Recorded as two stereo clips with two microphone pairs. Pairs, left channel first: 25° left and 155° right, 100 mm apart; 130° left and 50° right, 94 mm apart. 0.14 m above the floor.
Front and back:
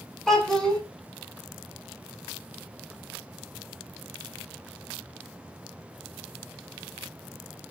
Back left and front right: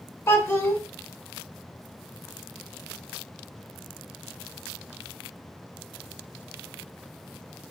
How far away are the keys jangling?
No keys jangling in this recording.